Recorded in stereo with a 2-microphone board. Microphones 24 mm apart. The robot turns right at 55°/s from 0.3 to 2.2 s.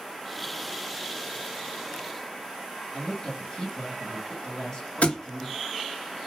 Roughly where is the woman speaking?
Left.